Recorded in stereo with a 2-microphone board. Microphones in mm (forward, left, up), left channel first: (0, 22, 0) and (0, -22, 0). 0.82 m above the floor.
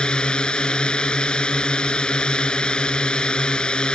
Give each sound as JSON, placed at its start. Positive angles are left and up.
{"t": 0.0, "sound": "a drone", "side_deg": 20}